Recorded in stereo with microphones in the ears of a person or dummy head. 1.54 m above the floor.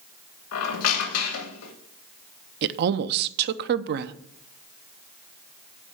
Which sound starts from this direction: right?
A woman speaking, at 2.6 s.